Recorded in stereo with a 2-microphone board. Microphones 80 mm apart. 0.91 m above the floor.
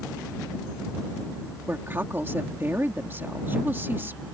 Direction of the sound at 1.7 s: 30° right (ahead or behind).